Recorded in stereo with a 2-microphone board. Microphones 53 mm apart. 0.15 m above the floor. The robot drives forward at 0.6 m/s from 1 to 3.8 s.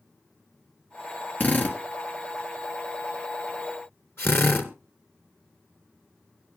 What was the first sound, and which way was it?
A drill, 35° left (ahead or behind).